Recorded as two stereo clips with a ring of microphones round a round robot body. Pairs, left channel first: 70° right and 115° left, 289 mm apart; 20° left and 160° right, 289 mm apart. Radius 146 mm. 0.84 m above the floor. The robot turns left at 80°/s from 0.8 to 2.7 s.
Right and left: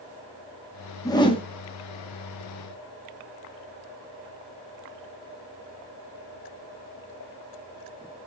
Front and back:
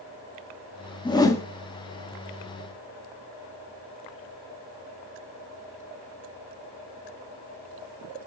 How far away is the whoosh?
About 0.9 m.